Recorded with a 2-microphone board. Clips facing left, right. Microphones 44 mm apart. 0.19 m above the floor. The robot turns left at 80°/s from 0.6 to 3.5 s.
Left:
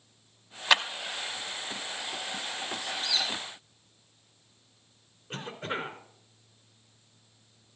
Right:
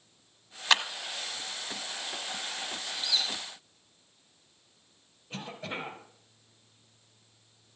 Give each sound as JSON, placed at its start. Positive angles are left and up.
{"t": 0.7, "sound": "a clap", "side_deg": 5, "distance_m": 0.8}
{"t": 2.8, "sound": "a squeak", "side_deg": 65, "distance_m": 5.0}
{"t": 5.3, "sound": "a cough", "side_deg": 50, "distance_m": 3.0}